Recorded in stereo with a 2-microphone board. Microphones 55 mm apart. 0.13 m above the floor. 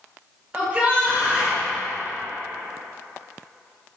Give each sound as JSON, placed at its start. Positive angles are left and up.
{"t": 0.5, "sound": "a shout", "side_deg": -25, "distance_m": 1.7}